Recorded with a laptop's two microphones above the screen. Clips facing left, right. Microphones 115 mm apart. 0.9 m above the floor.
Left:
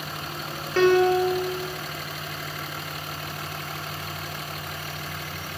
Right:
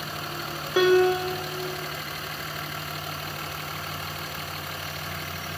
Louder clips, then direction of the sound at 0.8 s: Left 1 dB; 10° right (ahead or behind).